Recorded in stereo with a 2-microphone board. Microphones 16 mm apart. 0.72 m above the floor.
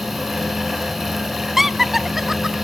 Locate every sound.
1.6 s laughter: 30° right (ahead or behind), 0.6 m